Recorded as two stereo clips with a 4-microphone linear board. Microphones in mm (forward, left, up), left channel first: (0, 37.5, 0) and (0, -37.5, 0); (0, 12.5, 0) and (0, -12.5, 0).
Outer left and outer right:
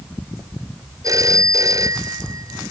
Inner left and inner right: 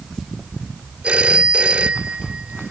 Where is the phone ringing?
50° right (ahead or behind).